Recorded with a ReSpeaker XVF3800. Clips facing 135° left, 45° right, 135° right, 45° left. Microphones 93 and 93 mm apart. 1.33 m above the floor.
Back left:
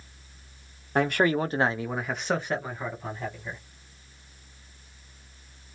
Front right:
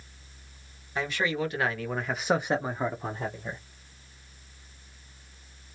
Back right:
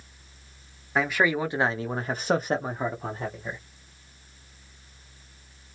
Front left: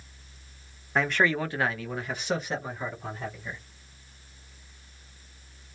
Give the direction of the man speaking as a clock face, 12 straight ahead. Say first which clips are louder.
Back left 6 dB, back right 1 dB; 7 o'clock.